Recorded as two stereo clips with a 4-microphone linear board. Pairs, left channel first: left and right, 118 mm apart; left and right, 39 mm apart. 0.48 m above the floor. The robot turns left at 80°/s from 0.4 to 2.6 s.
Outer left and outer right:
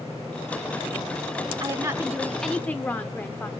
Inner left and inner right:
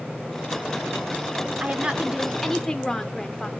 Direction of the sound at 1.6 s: 120° right.